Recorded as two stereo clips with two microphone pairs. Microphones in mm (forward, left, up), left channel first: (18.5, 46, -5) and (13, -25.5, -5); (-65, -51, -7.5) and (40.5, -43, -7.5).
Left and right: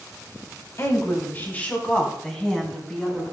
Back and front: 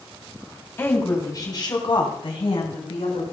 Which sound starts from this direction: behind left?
A woman speaking, at 0.8 s.